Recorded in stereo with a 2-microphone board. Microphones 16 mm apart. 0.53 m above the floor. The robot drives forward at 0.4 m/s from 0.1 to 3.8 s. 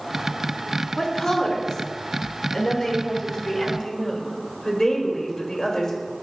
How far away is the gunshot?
I don't hear a gunshot.